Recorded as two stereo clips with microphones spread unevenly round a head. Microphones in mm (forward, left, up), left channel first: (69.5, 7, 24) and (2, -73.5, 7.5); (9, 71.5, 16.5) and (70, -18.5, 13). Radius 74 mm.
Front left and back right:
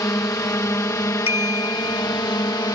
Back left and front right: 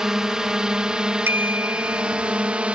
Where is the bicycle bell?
15° left.